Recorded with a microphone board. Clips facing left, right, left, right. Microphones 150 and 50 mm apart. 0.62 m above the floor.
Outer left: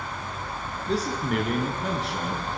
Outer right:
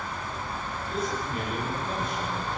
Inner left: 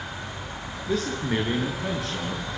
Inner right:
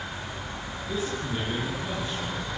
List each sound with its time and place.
0.9 s a man speaking: 85° left, 9 m; by 2.5 s 75° left (ahead or behind), 10 m